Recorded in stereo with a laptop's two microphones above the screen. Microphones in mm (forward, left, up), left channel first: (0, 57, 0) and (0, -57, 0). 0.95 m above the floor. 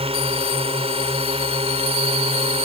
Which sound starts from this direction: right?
A drone, at 0.0 s.